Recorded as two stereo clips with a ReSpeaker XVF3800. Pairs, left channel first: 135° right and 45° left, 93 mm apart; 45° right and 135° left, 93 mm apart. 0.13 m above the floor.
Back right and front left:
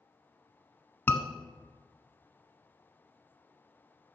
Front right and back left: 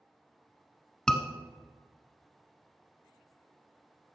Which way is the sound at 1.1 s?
115° right.